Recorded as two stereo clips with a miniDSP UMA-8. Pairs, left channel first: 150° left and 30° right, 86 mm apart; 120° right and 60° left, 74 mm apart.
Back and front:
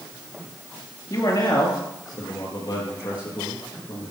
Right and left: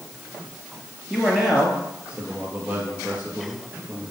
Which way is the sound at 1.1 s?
145° left.